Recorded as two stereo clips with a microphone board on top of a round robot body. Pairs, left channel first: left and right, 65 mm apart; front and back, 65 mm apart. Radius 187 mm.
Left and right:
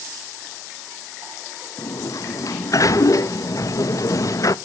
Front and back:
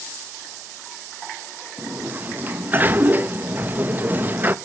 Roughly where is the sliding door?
Behind left.